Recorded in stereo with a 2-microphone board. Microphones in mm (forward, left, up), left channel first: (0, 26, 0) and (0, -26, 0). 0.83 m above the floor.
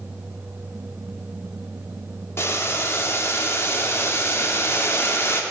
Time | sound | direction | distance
2.4 | boiling | 50° left (ahead or behind) | 0.5 m